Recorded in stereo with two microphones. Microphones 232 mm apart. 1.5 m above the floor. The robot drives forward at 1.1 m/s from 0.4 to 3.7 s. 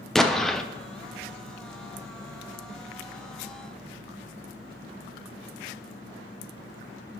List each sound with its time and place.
0.1 s an explosion: centre (ahead or behind), 0.9 m; by 0.6 s 5° left (ahead or behind), 0.6 m